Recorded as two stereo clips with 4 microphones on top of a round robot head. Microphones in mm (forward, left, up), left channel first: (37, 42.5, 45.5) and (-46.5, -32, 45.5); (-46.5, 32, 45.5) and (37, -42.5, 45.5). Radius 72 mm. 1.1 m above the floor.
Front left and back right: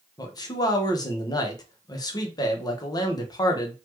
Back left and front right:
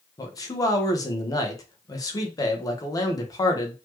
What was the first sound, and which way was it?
A man speaking, 85° left.